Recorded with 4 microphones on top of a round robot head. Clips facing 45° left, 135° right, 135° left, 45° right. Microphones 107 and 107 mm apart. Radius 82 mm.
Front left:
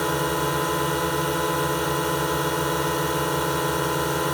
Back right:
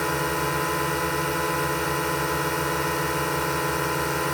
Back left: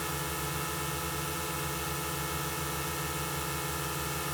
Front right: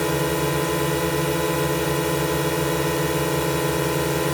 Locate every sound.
0.0 s a drone: 35° right